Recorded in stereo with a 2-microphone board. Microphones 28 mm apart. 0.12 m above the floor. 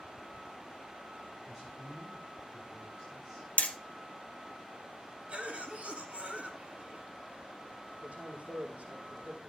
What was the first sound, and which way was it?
A man speaking, 10° right (ahead or behind).